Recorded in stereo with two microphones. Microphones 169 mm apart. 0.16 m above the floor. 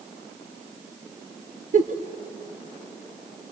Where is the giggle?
50° right (ahead or behind), 1.7 m.